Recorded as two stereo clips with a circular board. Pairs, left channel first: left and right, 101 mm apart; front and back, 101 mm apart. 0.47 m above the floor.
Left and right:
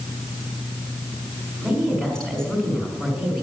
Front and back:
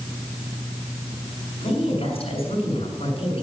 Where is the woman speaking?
5° left, 5 m.